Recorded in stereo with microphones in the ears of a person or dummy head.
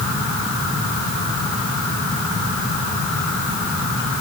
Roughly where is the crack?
I don't hear a crack.